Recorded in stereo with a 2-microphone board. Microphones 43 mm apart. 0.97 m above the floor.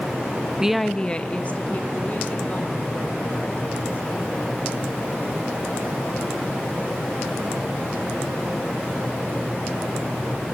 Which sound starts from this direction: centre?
A woman speaking, at 0.6 s.